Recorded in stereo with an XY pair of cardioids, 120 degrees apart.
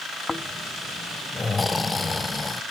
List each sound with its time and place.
0.3 s snoring: 15° left, 0.7 m